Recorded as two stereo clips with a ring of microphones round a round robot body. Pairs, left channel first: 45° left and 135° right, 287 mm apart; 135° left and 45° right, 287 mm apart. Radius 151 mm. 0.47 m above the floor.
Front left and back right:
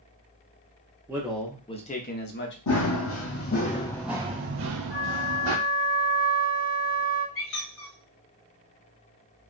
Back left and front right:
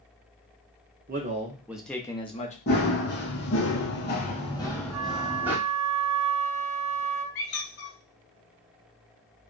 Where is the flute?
15° left, 0.9 m.